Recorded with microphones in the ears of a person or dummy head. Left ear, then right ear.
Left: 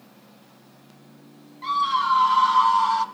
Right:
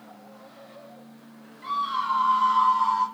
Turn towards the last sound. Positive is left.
turn(degrees=45)  # may be behind; listen again after turning